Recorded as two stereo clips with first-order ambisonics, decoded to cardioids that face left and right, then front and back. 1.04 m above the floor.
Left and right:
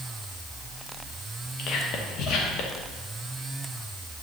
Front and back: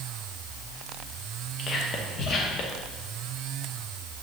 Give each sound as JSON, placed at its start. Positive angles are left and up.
{"t": 1.6, "sound": "whispering", "azimuth_deg": 55, "distance_m": 0.9}